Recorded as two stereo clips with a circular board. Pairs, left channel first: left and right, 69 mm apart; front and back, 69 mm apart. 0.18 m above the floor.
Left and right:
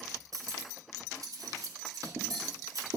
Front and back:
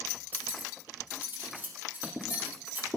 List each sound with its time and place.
0.3 s cutlery clinking: 115° right, 2.5 m